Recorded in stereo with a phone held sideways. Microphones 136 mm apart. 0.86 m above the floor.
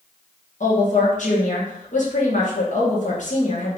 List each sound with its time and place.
0.6 s a woman speaking: 65° left (ahead or behind), 1.3 m